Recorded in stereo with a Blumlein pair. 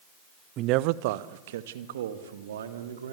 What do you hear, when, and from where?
0.6 s a man speaking: 35° right, 0.7 m; by 3.1 s 65° right, 3.5 m